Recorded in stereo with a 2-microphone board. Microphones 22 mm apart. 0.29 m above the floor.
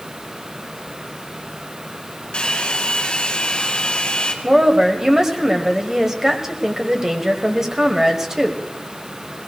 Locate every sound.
2.3 s a hair dryer: 55° left (ahead or behind), 3 m
4.4 s a woman speaking: 20° right (ahead or behind), 1.6 m